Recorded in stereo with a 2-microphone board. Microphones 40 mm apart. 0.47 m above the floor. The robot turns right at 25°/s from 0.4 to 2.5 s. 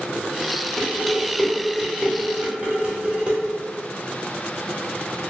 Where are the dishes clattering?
15° left (ahead or behind), 0.9 m; by 3.4 s 25° right (ahead or behind), 0.9 m.